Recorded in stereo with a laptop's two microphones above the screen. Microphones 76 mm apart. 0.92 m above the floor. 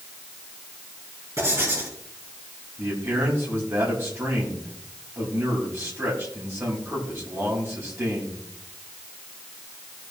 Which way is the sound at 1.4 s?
35° right (ahead or behind).